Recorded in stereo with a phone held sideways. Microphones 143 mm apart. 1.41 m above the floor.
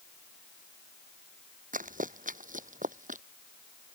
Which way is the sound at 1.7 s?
75° right (ahead or behind).